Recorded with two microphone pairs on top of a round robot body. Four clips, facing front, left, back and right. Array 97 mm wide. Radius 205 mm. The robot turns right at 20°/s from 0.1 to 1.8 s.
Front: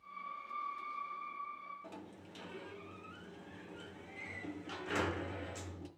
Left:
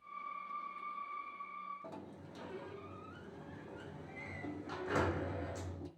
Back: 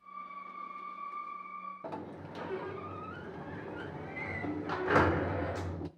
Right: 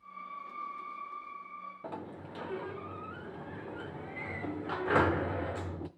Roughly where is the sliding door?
Behind right.